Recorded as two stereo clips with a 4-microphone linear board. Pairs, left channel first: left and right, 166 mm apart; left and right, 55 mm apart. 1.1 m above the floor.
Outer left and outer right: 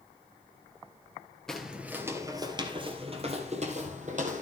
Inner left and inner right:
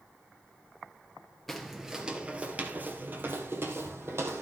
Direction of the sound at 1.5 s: 5° left (ahead or behind).